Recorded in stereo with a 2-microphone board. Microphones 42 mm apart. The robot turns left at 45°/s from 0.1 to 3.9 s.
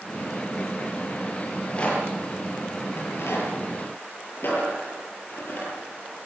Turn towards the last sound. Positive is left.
turn(degrees=55)  # may be behind; listen again after turning